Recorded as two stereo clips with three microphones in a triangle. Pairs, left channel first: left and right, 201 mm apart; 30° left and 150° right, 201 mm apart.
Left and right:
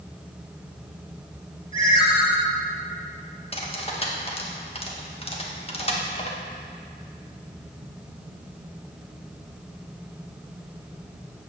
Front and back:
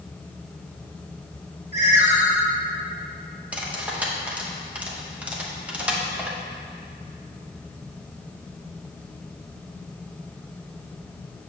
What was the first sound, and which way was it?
A ringtone, 155° left.